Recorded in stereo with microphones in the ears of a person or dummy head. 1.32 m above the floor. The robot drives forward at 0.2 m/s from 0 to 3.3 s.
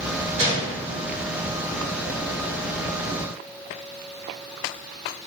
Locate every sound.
0.4 s a gunshot: 50° right (ahead or behind), 1.5 m